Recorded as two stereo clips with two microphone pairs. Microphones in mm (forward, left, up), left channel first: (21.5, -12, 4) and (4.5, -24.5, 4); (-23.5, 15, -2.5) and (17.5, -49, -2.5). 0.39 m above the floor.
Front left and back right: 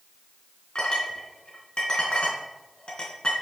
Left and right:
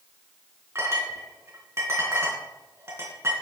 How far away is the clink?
About 3 m.